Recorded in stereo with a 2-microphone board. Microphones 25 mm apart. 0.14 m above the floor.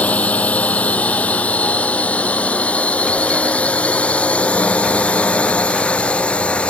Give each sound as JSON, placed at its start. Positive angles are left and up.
{"t": 0.0, "sound": "a drone", "side_deg": 70}